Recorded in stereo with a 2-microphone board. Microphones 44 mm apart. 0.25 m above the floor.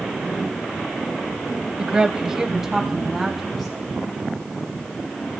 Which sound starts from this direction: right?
A woman speaking, at 1.8 s.